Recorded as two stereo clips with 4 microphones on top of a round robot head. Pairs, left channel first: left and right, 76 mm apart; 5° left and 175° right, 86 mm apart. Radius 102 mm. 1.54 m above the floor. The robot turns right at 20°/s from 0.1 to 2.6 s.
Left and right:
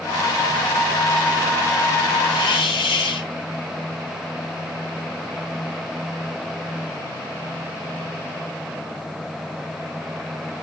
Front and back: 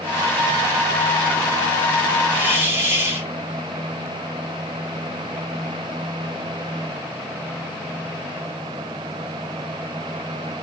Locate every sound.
2.3 s a hiss: 110° left, 2.5 m; by 3.3 s 120° left, 2.5 m